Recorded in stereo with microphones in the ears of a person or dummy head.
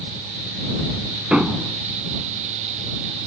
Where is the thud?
5° right (ahead or behind).